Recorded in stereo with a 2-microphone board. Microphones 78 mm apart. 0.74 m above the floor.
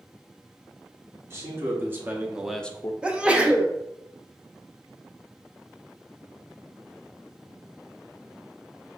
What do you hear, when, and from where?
1.3 s a man speaking: 35° right (ahead or behind), 1.7 m; by 2.9 s 40° left (ahead or behind), 0.5 m
3.0 s a sneeze: 15° right (ahead or behind), 0.7 m